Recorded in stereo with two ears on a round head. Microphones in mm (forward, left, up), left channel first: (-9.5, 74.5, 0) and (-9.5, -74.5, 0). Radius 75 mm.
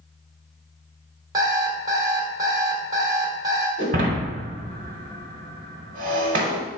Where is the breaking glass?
50° right (ahead or behind), 0.9 m.